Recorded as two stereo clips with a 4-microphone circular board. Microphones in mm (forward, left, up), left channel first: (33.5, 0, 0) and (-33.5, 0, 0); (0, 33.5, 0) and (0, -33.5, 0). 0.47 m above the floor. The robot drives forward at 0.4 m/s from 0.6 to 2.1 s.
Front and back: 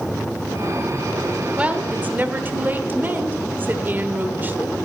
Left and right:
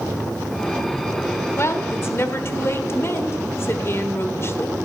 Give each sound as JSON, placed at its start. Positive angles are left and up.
{"t": 1.6, "sound": "a woman speaking", "azimuth_deg": 120, "distance_m": 1.1}